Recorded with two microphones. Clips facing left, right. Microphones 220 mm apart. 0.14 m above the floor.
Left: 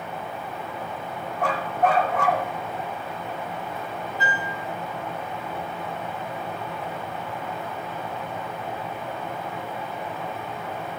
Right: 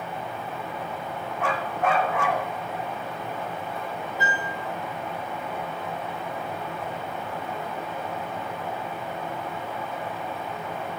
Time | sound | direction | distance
1.4 | a dog barking | 35° left (ahead or behind) | 2 m
4.2 | a piano | 40° right (ahead or behind) | 7 m